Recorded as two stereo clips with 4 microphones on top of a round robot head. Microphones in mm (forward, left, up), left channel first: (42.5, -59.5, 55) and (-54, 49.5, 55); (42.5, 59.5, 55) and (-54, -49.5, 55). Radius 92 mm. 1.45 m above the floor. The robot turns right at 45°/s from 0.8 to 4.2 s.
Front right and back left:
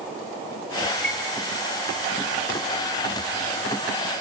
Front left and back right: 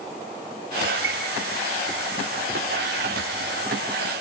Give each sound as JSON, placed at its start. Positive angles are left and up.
{"t": 1.0, "sound": "a chime", "azimuth_deg": -130, "distance_m": 3.5}